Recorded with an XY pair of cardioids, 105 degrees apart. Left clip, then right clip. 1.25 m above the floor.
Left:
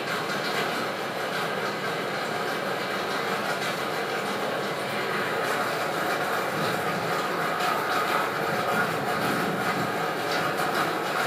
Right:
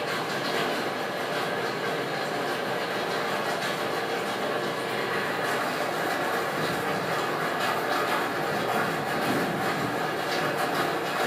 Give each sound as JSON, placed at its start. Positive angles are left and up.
{"t": 0.0, "sound": "a machine running", "azimuth_deg": 25, "distance_m": 2.0}